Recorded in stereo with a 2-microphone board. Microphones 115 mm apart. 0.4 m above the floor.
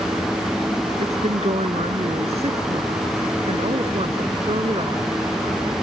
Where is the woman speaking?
75° right (ahead or behind); by 5.1 s 50° right (ahead or behind).